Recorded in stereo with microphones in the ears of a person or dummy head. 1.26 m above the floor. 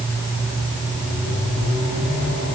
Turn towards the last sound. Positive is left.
No sound to turn to.